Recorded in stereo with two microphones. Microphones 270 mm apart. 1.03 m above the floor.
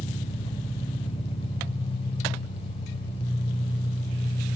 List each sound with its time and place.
0.0 s an engine running: 20° left (ahead or behind), 5 m